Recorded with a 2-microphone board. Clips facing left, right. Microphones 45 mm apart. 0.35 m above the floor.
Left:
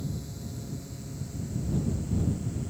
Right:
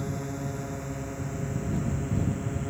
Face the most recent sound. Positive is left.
turn(degrees=-40)  # may be behind; listen again after turning